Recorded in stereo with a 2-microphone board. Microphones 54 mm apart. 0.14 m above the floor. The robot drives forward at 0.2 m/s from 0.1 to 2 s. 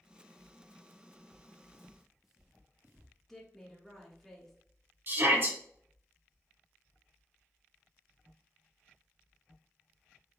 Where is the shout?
45° right (ahead or behind), 2 m.